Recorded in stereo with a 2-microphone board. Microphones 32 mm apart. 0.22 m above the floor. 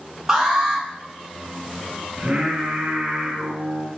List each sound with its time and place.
0.3 s an alarm: 15° right (ahead or behind), 2 m
2.2 s singing: 40° right (ahead or behind), 1.4 m